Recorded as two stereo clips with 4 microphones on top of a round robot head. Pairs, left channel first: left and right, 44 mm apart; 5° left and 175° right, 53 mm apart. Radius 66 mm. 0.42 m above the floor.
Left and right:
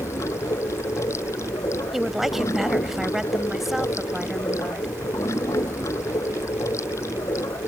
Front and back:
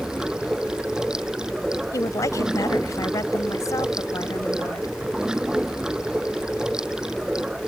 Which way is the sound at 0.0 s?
105° left.